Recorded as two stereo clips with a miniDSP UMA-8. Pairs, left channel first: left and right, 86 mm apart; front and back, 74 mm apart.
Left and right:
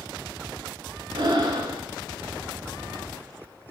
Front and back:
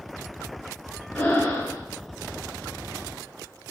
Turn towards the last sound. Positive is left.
turn(degrees=-65)